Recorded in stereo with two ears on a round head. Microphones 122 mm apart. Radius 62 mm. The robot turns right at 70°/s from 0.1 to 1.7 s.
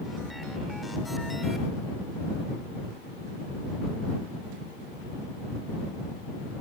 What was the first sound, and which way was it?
Only background noise.